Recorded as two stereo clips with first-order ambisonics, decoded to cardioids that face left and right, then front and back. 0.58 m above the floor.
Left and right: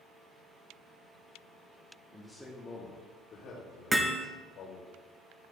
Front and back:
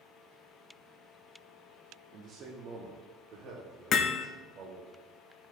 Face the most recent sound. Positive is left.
turn(degrees=-25)